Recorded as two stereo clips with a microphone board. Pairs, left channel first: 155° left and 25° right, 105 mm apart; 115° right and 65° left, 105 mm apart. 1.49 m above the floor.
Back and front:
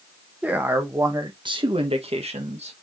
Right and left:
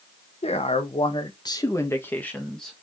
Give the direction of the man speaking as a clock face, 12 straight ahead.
3 o'clock.